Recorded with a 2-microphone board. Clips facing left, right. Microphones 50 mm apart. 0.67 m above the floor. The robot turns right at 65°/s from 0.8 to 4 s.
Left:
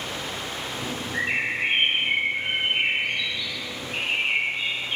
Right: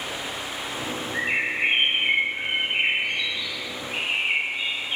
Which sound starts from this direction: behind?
A bird, at 1.1 s.